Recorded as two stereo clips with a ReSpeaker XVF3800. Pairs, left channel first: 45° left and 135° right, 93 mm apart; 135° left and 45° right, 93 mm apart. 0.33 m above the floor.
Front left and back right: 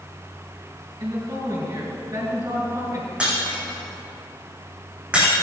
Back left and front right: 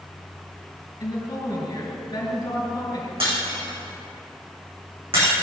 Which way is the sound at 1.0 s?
Straight behind.